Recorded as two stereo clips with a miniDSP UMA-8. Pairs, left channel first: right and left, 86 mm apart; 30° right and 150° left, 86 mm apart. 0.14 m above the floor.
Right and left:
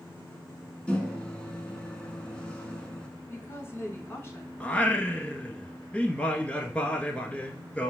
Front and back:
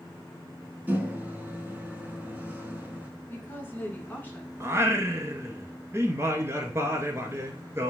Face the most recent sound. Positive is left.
turn(degrees=-160)